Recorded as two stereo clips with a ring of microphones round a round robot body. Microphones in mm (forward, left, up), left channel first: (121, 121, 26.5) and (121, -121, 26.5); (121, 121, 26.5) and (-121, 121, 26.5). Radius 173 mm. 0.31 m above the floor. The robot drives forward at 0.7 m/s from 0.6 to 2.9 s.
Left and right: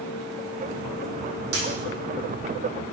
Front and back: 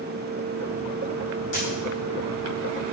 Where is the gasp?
No gasp in this recording.